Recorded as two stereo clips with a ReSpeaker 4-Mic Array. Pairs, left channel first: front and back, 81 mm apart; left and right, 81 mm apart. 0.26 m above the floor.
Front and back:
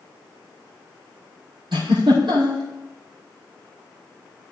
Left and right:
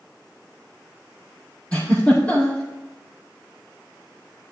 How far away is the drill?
I don't hear a drill.